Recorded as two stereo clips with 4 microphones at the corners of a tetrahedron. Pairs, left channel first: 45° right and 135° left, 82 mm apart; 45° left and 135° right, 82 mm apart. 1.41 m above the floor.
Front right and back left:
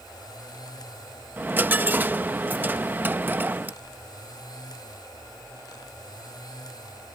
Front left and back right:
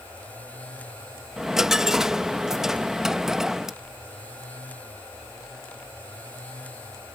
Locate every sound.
1.4 s a dropped coin: 150° left